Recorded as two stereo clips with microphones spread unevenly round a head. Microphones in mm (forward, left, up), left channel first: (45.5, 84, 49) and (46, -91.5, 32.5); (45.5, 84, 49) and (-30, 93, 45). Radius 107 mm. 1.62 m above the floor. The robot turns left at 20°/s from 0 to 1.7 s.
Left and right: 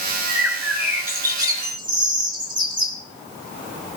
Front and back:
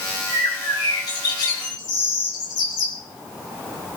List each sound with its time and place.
0.3 s a bird: straight ahead, 3 m; by 3.0 s 30° right, 3 m